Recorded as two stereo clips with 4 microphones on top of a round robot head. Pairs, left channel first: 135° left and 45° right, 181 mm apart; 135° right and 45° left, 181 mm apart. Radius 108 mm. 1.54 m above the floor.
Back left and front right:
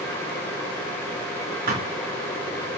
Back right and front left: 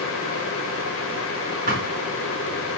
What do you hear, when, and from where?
1.7 s a thud: straight ahead, 5 m